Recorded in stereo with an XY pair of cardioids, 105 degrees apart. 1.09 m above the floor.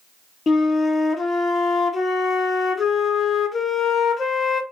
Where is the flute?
40° left, 0.5 m.